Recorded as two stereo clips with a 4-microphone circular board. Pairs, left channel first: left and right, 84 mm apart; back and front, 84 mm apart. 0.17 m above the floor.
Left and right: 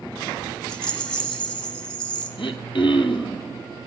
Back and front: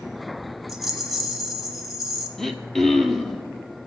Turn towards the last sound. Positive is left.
turn(degrees=95)